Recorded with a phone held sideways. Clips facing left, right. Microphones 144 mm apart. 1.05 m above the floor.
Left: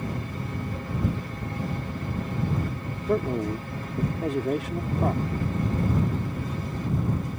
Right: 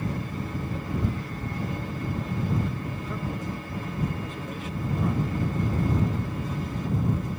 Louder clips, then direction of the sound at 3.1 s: Left 11 dB; 70° left (ahead or behind).